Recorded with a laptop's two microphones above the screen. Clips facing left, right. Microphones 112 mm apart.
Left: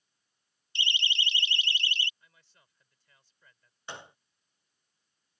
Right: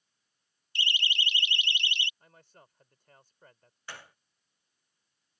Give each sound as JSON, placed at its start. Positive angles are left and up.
{"t": 0.8, "sound": "a siren", "side_deg": 25}
{"t": 2.2, "sound": "a man speaking", "side_deg": -50}
{"t": 3.9, "sound": "a gunshot", "side_deg": 25}